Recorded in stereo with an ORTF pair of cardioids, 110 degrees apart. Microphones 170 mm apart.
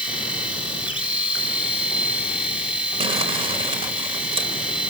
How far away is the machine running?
About 4.5 m.